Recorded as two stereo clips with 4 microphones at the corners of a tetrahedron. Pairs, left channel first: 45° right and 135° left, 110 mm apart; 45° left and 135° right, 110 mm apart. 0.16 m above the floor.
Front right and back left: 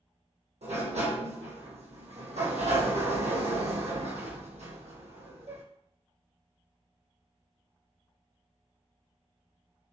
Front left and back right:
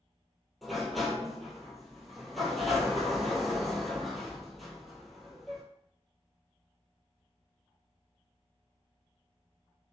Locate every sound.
0.6 s a sliding door: 135° left, 1.2 m